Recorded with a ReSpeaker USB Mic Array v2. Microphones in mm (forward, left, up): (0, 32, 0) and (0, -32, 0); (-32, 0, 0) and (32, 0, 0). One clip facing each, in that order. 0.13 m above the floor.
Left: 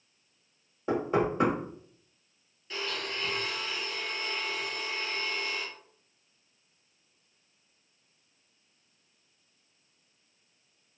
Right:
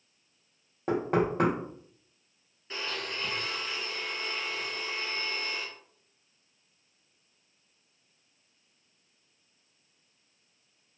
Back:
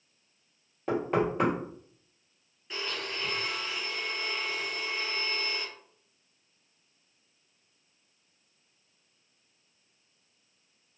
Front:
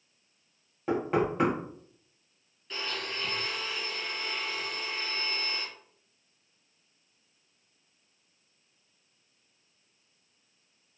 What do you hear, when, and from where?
0.9 s knocking: 85° right, 1.8 m
2.7 s a blender: 110° right, 1.4 m